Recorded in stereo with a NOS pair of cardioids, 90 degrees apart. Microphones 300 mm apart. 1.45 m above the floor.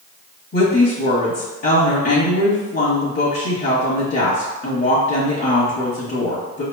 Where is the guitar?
No guitar in this recording.